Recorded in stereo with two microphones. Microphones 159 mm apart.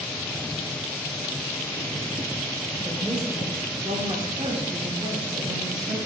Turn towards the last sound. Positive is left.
turn(degrees=-20)  # may be behind; listen again after turning